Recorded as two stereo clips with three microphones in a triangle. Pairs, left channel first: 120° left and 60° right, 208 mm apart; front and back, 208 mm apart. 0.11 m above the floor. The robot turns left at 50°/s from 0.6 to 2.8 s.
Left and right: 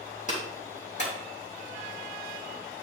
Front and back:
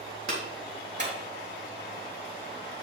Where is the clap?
170° left, 3.5 m; by 1.1 s 145° left, 3.5 m.